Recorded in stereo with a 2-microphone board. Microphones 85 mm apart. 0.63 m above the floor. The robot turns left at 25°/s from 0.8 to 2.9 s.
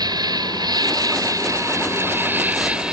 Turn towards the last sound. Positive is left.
turn(degrees=-165)